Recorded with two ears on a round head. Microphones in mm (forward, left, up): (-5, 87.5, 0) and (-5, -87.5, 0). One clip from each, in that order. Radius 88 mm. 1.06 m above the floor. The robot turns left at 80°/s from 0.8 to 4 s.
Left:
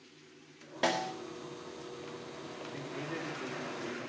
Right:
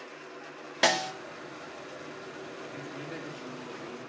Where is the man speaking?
105° right, 2.5 m; by 4.0 s 155° left, 2.5 m.